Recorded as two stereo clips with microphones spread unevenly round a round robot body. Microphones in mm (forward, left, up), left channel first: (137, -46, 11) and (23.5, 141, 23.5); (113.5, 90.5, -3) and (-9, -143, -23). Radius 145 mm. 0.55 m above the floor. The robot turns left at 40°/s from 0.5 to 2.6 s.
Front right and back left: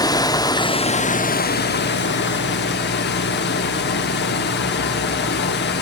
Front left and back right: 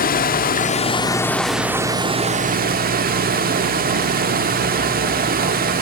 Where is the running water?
10° left, 0.7 m; by 5.8 s 75° right, 0.7 m.